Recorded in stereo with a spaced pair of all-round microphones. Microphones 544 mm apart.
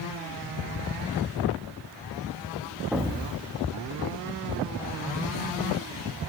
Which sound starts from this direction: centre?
An explosion, at 2.9 s.